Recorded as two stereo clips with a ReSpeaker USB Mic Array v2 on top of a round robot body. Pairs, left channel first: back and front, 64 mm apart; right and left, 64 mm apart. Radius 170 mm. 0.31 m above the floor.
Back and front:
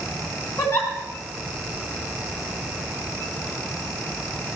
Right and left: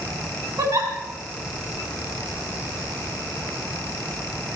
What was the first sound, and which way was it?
A giggle, 125° left.